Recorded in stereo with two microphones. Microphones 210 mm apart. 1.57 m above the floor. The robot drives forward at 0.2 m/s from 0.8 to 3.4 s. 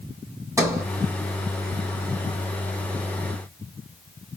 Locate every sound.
0.6 s a sliding door: 15° right (ahead or behind), 1.0 m